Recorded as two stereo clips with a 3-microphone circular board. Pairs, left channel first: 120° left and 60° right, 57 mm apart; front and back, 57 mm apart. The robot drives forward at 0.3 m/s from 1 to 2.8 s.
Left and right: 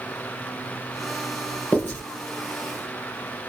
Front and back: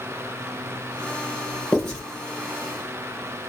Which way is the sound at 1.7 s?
75° left.